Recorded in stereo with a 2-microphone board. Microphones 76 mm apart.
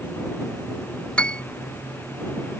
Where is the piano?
15° left (ahead or behind).